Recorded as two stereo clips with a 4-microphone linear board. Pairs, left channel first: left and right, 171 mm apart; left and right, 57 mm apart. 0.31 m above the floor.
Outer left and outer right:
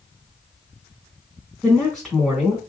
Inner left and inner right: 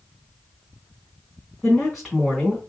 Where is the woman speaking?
Centre (ahead or behind), 1.4 m.